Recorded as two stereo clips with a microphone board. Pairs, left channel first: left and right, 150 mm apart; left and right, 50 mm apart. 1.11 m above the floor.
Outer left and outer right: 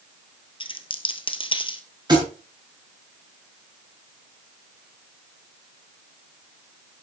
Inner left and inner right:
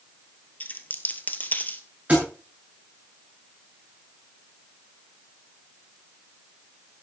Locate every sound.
0.6 s a dropped coin: 35° left (ahead or behind), 1.3 m
2.1 s a thud: 30° right (ahead or behind), 7.5 m